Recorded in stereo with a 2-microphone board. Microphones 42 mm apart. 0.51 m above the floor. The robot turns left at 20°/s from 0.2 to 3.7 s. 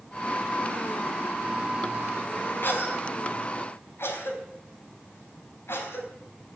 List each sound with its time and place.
2.6 s a cough: 55° left (ahead or behind), 4 m; by 6.1 s 70° left (ahead or behind), 4 m